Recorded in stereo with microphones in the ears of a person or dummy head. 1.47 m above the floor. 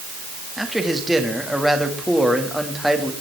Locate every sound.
0.6 s a man speaking: 5° right (ahead or behind), 2 m